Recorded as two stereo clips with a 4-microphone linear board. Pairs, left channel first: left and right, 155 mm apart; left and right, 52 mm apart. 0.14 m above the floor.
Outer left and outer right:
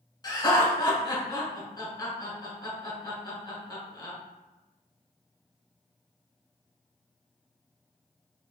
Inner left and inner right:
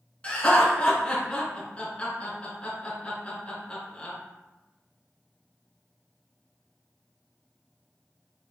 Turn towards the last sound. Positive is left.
turn(degrees=25)  # may be behind; listen again after turning